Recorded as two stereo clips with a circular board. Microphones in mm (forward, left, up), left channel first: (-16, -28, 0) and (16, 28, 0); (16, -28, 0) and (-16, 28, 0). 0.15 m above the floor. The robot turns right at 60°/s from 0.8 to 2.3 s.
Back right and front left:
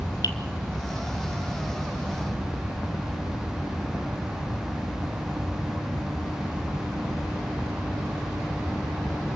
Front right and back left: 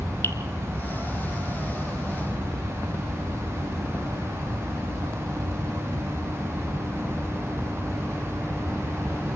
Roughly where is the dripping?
Right.